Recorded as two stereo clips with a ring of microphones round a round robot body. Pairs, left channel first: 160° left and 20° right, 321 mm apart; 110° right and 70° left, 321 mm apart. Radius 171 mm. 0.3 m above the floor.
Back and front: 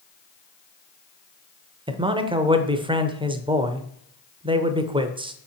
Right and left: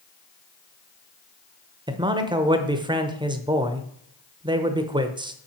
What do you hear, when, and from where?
1.9 s a man speaking: 20° left, 0.9 m